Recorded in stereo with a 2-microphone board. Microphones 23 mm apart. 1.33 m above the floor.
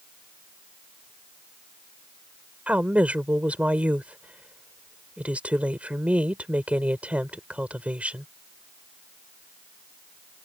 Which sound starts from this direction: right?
A woman speaking, at 2.7 s.